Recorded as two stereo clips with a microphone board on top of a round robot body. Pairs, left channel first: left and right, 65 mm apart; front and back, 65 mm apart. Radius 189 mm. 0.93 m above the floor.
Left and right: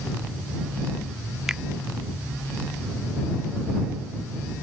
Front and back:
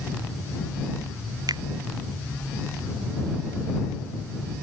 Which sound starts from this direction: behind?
A finger snap, at 1.5 s.